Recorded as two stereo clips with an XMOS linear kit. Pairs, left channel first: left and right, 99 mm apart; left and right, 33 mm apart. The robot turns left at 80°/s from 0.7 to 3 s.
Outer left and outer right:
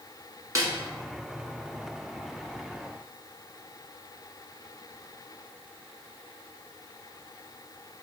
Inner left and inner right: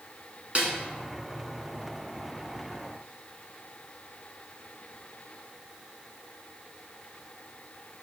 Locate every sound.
0.6 s a snare drum: 35° right (ahead or behind), 1.0 m